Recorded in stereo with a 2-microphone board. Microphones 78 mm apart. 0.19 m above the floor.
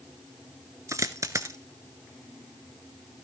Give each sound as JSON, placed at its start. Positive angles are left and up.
{"t": 0.9, "sound": "a dropped coin", "side_deg": -45, "distance_m": 0.6}